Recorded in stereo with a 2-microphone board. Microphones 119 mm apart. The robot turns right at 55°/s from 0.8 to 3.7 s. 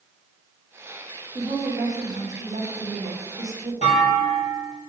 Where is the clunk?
70° left (ahead or behind), 3.5 m.